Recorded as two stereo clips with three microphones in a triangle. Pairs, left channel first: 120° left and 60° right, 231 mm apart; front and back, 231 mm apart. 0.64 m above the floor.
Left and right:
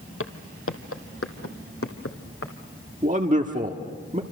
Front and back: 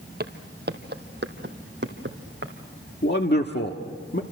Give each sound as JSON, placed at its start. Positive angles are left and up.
{"t": 0.2, "sound": "footsteps", "azimuth_deg": 135, "distance_m": 1.3}
{"t": 3.0, "sound": "a man speaking", "azimuth_deg": -15, "distance_m": 1.4}